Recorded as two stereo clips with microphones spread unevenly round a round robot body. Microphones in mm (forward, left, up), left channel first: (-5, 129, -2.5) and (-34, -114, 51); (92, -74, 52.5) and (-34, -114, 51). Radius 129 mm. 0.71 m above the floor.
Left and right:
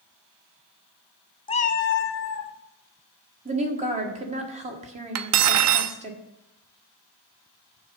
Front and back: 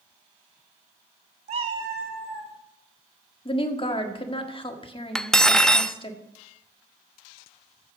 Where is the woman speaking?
30° right, 1.5 m.